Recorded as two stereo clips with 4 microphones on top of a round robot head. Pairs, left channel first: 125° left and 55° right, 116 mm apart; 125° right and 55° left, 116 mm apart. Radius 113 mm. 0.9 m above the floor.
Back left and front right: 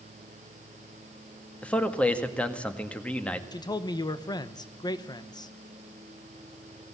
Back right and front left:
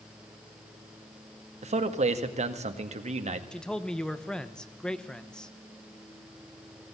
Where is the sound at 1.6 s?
50° left, 1.9 m.